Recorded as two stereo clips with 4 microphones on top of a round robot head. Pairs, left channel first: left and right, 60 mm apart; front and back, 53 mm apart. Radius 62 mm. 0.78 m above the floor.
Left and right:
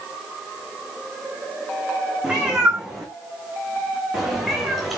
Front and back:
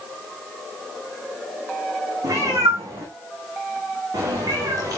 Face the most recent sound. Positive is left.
turn(degrees=-175)